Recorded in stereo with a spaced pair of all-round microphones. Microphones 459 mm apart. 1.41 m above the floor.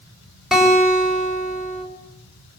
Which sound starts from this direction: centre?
A guitar, at 0.5 s.